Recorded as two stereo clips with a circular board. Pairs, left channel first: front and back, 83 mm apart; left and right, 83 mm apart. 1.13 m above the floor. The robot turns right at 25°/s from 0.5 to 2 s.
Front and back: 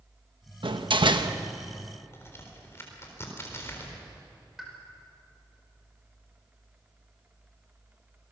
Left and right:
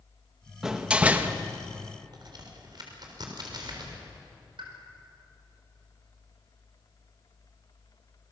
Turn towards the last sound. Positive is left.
turn(degrees=-95)